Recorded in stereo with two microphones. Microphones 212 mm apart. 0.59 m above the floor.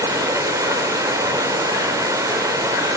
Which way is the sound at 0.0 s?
15° right (ahead or behind).